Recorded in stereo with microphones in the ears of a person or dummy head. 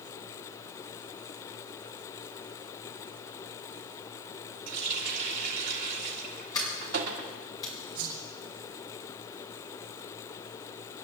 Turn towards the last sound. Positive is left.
turn(degrees=-75)  # may be behind; listen again after turning